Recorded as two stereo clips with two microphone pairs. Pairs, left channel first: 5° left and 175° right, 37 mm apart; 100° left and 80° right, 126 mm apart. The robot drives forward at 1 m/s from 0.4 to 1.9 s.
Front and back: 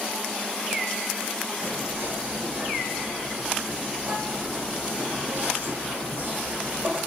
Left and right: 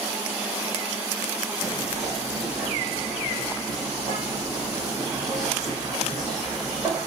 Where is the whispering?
155° right, 4.5 m.